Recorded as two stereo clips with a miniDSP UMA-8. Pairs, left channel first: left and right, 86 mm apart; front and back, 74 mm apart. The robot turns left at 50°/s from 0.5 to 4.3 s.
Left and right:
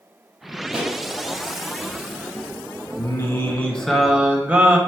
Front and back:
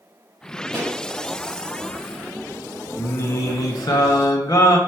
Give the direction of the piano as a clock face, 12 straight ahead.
No piano in this recording.